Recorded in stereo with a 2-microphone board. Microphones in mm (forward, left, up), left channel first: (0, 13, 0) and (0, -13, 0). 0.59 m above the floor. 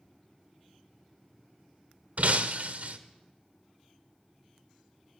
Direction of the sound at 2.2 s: 65° right (ahead or behind).